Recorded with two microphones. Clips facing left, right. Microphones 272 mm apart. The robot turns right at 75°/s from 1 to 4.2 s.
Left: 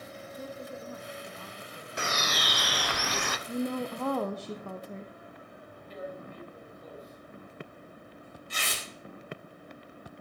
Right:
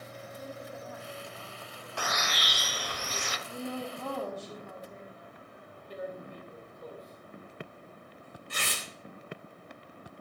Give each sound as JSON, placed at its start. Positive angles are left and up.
{"t": 0.4, "sound": "a woman speaking", "azimuth_deg": 40, "distance_m": 2.0}
{"t": 2.0, "sound": "a bird", "azimuth_deg": 20, "distance_m": 0.8}
{"t": 3.5, "sound": "a woman speaking", "azimuth_deg": 40, "distance_m": 0.8}
{"t": 5.9, "sound": "tearing paper", "side_deg": -60, "distance_m": 4.0}